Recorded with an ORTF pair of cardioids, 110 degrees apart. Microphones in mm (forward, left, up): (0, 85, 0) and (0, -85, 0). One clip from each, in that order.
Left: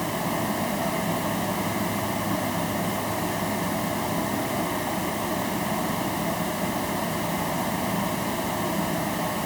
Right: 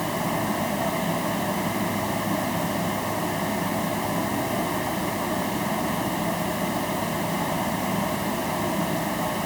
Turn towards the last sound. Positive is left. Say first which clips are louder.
# right 1 dB
turn(degrees=-10)